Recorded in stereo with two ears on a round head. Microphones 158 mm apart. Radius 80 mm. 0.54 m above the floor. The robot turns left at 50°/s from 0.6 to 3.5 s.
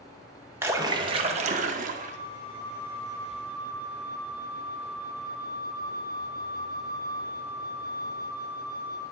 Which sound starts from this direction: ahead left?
A flute, at 1.9 s.